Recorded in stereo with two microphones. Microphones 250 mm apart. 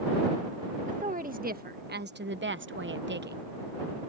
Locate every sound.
0.9 s a woman speaking: 30° right (ahead or behind); by 3.4 s 40° right (ahead or behind)